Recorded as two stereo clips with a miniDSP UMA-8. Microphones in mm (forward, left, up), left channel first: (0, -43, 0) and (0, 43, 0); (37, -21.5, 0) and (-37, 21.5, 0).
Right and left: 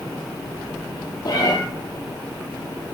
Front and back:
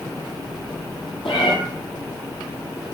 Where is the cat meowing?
45° right, 5 m.